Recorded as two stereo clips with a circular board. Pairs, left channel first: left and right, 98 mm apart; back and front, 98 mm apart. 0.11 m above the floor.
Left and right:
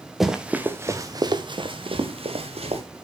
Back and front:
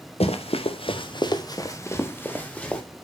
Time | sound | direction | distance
0.2 | running footsteps | straight behind | 1.9 m